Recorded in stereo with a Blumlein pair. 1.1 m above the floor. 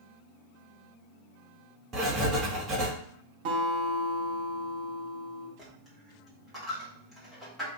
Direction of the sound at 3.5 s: 45° right.